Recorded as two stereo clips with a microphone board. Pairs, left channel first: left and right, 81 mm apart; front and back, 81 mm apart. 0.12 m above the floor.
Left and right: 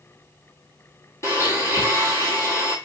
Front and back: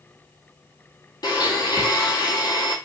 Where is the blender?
35° left, 1.0 m.